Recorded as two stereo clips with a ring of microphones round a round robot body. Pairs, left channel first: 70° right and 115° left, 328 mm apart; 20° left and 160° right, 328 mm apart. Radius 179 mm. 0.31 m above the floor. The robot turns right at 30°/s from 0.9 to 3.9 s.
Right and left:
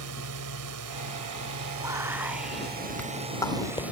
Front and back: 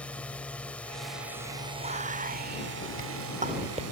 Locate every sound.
0.0 s a drone: 105° left; by 3.9 s 165° right
1.8 s whispering: 175° left; by 3.8 s 120° right